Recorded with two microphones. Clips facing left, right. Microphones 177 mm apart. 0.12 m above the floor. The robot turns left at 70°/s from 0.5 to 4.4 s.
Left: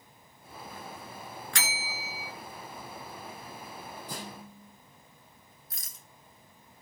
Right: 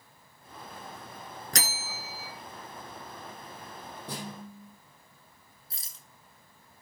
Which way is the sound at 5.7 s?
30° right (ahead or behind).